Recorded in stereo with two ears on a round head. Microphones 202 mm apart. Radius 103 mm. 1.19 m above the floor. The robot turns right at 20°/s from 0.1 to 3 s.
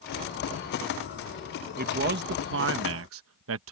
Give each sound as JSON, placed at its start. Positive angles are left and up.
{"t": 1.8, "sound": "a man speaking", "side_deg": -40}